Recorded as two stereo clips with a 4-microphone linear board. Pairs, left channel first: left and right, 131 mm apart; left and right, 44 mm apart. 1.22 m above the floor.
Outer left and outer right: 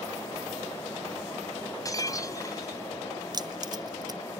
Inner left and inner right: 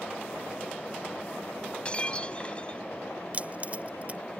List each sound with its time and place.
1.9 s breaking glass: 30° left (ahead or behind)
3.3 s keys jangling: 35° right (ahead or behind)